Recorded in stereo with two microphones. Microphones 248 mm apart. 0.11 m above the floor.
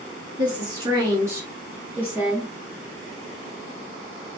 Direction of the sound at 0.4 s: 20° right (ahead or behind).